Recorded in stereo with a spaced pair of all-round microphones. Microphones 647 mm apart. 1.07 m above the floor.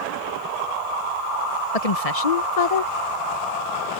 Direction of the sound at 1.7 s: 60° left (ahead or behind).